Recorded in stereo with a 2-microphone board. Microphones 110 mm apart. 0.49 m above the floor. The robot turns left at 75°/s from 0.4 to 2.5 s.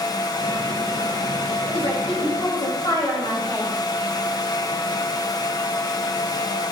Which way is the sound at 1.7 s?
100° left.